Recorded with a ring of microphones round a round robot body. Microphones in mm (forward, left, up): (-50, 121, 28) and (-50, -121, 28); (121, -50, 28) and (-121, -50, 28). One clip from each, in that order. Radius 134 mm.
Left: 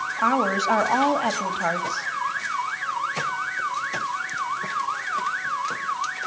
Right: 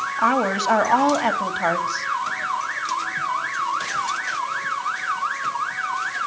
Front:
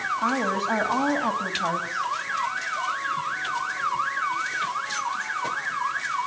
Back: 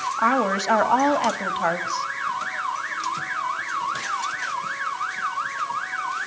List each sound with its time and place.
0.2 s a woman speaking: 170° right, 2.5 m